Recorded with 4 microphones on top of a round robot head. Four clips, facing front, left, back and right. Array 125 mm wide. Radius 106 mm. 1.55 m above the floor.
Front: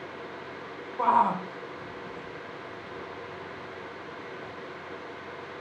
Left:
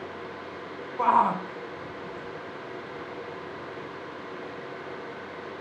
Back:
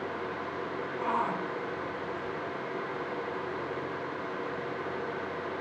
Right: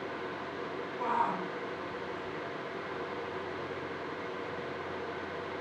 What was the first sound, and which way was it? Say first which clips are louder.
A shout: left 10 dB, front 9 dB; 55° left.